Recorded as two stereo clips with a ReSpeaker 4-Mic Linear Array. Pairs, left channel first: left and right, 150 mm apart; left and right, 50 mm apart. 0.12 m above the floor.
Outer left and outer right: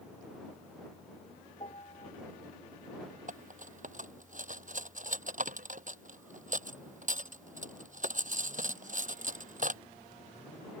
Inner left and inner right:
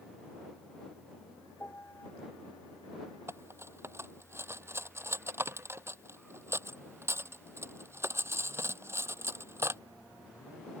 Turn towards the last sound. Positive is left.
turn(degrees=-60)  # may be behind; listen again after turning